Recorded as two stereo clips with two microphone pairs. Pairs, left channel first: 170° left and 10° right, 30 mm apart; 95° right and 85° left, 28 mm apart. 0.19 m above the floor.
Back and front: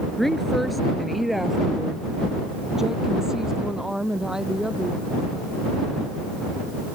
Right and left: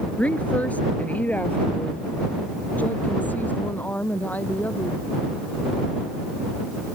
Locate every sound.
0.2 s a woman speaking: 115° right; by 5.0 s 85° right